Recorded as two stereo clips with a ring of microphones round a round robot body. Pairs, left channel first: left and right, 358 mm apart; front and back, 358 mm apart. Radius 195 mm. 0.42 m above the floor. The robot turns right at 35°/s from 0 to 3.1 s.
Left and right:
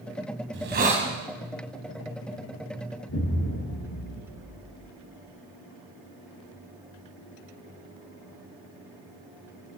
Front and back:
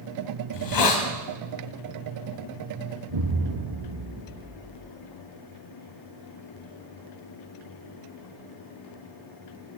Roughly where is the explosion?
Behind left.